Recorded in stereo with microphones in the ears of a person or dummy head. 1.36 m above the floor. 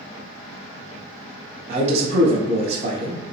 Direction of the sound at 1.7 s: 40° right (ahead or behind).